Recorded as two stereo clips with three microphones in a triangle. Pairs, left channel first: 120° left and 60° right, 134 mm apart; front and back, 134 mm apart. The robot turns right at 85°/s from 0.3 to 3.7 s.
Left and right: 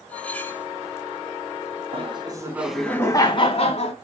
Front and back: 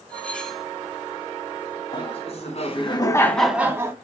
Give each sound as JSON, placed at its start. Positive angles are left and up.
{"t": 0.1, "sound": "cutlery clinking", "azimuth_deg": 60, "distance_m": 0.7}
{"t": 1.9, "sound": "laughter", "azimuth_deg": -40, "distance_m": 1.9}